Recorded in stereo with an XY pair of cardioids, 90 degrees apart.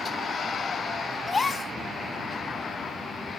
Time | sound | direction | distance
1.3 | a gasp | 30° left | 1.6 m